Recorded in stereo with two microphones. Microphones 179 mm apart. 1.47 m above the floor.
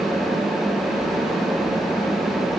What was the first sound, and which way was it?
Only background noise.